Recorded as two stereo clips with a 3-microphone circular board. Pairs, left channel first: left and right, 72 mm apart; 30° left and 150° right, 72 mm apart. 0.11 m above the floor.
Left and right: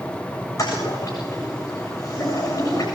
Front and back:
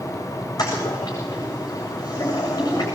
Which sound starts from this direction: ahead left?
A toilet flushing, at 0.6 s.